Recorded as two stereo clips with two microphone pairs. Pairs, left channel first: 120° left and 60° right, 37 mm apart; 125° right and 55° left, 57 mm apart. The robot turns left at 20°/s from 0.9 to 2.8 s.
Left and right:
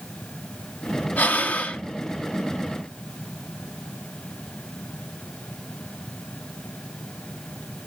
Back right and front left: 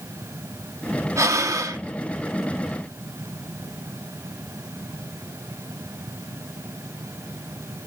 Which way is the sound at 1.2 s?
80° left.